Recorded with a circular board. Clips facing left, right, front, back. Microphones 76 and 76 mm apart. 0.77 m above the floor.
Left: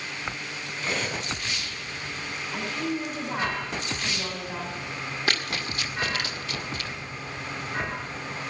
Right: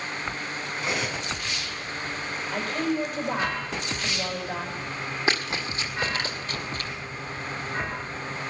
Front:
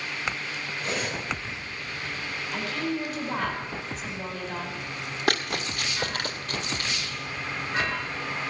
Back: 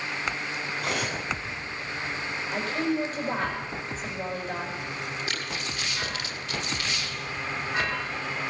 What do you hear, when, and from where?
0.8 s cutlery clinking: 165° right, 4.5 m
2.5 s a woman speaking: 130° right, 5 m
5.3 s running footsteps: 20° right, 2.0 m; by 6.9 s 45° right, 1.9 m